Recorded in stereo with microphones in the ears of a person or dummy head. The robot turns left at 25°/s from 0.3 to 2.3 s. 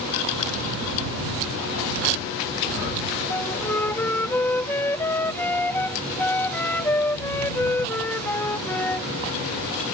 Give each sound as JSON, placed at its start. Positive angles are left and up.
{"t": 3.3, "sound": "a flute", "side_deg": 15}